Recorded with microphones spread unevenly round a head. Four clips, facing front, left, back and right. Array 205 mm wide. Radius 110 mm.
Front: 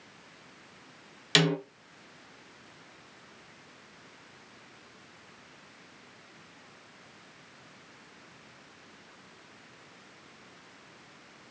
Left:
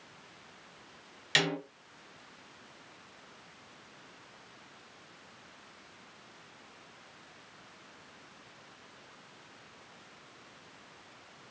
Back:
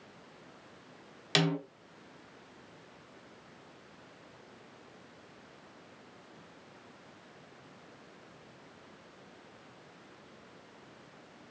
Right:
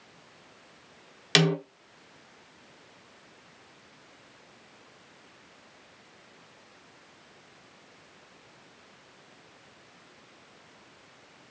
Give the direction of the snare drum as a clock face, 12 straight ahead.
2 o'clock.